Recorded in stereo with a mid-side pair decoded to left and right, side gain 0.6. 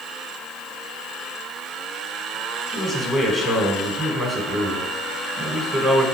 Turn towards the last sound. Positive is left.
turn(degrees=-15)